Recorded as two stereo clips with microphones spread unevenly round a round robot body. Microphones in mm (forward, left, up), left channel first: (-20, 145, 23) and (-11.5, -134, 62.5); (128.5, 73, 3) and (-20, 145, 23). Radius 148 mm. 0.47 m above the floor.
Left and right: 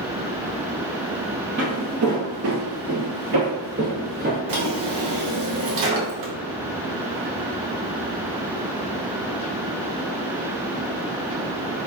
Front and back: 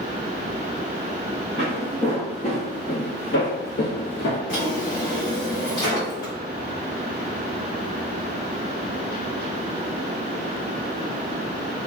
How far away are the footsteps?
About 1.0 m.